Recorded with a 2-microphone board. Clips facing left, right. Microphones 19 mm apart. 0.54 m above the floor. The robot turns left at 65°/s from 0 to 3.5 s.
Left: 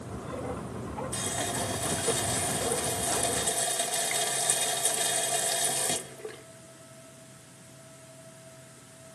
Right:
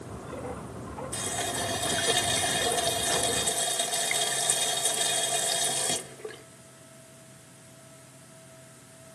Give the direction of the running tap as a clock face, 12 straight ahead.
12 o'clock.